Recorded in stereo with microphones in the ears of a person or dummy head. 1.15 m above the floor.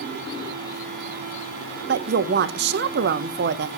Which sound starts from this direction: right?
A woman speaking, at 1.9 s.